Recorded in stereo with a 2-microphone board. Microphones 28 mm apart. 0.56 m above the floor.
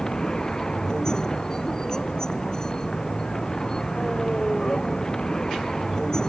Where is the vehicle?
25° left (ahead or behind).